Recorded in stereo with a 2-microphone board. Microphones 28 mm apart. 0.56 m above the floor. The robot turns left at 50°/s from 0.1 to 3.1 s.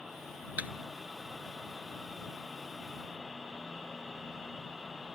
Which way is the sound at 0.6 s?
65° right (ahead or behind).